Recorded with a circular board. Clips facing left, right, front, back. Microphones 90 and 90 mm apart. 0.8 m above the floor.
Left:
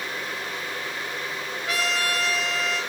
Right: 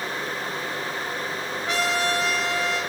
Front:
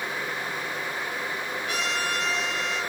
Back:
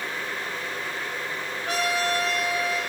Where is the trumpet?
145° right, 1.9 m.